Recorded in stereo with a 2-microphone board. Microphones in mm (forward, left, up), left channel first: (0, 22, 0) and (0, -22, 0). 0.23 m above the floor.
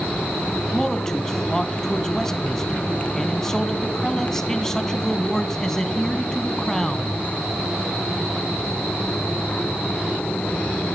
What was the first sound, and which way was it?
A man speaking, 10° left (ahead or behind).